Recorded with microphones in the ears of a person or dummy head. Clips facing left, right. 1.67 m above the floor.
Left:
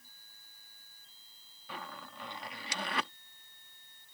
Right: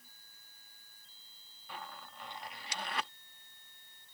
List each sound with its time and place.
1.7 s a zipper: 70° left (ahead or behind)